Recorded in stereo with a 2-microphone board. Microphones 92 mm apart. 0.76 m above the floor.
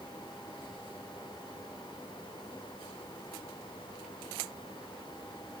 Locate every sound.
Only background noise.